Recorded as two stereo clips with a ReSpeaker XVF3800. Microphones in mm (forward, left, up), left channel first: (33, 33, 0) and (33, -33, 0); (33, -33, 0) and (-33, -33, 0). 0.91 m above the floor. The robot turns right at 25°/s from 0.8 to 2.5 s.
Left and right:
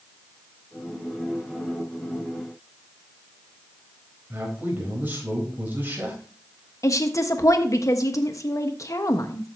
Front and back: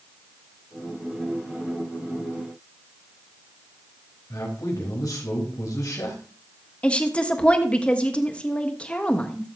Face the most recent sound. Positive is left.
turn(degrees=70)